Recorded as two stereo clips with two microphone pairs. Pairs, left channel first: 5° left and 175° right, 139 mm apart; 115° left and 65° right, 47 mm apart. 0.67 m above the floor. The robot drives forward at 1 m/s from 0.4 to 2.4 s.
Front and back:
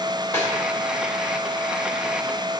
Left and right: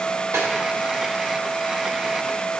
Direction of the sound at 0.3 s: 65° right.